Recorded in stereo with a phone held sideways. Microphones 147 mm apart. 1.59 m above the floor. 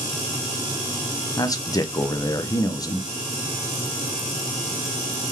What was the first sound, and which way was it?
A man speaking, 25° left (ahead or behind).